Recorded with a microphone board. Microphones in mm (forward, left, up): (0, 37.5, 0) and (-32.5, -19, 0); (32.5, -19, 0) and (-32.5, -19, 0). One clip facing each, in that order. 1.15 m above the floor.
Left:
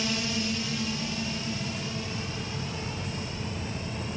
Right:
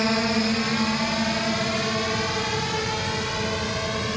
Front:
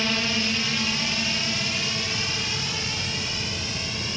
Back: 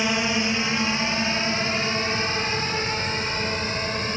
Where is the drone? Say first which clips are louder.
Right 8 dB, back 3 dB; 115° right; by 4.2 s 135° right.